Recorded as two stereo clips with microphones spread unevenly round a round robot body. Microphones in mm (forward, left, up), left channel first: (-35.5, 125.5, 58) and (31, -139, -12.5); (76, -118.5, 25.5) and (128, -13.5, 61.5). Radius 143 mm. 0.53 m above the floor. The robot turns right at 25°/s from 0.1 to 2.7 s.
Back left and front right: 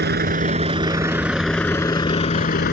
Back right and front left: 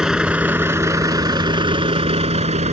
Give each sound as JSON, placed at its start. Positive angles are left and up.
{"t": 0.0, "sound": "a vehicle", "azimuth_deg": -20}